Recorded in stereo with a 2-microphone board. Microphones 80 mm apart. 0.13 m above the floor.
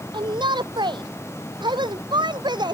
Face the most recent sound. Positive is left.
turn(degrees=-70)  # may be behind; listen again after turning